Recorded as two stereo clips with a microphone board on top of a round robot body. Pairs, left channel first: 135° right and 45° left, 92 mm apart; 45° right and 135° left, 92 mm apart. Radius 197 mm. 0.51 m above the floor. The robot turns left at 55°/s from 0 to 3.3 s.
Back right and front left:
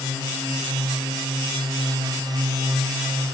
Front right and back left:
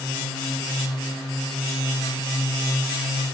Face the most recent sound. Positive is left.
No sound to turn to.